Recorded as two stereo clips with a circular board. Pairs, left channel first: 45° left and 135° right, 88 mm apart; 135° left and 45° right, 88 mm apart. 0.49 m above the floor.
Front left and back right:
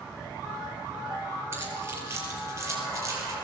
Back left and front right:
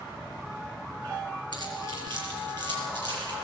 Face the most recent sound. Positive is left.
turn(degrees=-80)